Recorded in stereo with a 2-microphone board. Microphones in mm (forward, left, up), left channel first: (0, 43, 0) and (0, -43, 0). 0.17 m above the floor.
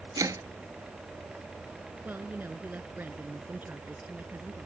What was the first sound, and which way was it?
Chopping, 45° right (ahead or behind).